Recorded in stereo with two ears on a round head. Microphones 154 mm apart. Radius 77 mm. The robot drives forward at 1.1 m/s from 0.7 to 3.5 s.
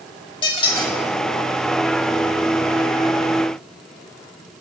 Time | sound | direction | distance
0.4 | a squeak | 30° left (ahead or behind) | 0.5 m